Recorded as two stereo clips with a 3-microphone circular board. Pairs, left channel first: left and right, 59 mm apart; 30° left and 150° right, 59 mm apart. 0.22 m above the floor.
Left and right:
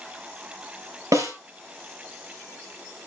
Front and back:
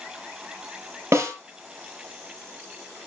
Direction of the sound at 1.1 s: 110° right.